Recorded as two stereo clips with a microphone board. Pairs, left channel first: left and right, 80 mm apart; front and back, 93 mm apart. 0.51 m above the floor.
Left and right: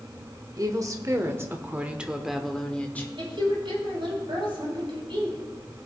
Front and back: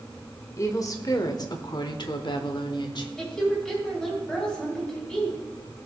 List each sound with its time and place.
0.6 s a woman speaking: 55° right, 1.3 m; by 3.1 s 25° left, 1.0 m
3.2 s a woman speaking: 80° right, 4.5 m